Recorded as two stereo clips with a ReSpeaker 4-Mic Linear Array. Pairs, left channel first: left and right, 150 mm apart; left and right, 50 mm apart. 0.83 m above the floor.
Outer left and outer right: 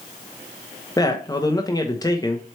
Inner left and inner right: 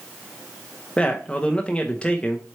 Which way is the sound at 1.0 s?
25° left (ahead or behind).